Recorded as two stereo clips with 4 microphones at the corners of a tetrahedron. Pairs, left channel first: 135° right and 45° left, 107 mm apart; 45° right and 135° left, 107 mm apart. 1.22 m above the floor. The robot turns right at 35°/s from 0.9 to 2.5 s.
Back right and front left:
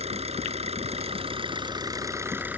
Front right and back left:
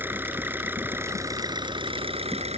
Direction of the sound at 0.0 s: 65° left.